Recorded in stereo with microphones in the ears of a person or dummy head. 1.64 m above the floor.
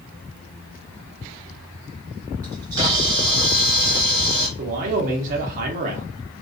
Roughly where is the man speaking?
Right.